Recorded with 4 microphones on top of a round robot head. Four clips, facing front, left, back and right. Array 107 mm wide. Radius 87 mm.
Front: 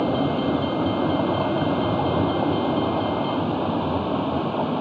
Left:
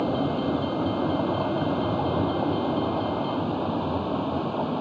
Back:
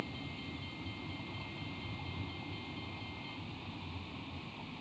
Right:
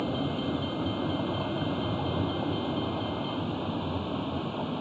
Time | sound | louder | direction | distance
0.0 | a vehicle | left 6 dB, front 23 dB | 20° left | ?